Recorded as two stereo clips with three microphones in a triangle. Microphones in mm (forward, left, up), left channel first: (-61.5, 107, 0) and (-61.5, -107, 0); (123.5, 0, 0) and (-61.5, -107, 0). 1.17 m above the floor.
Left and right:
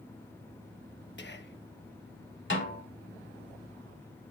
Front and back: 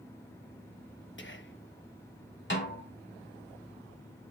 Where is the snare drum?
60° left, 2.5 m.